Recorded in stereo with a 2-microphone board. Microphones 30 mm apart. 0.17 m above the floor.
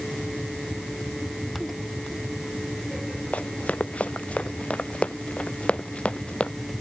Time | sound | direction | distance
3.3 | running footsteps | 50° left (ahead or behind) | ?